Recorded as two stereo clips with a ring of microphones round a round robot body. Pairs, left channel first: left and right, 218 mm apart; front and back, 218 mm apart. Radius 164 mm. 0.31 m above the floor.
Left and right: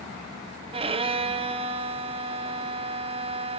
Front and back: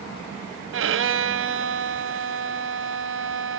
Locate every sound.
0.7 s a violin: 155° right, 1.2 m